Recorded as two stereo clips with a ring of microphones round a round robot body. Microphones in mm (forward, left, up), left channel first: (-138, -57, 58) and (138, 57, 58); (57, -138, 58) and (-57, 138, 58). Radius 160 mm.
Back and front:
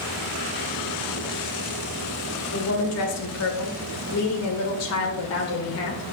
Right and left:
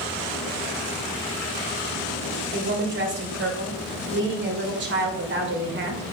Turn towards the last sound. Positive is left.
turn(degrees=165)